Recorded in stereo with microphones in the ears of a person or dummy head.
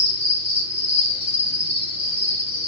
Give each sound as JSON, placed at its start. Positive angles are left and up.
{"t": 0.0, "sound": "an insect", "side_deg": 40, "distance_m": 0.7}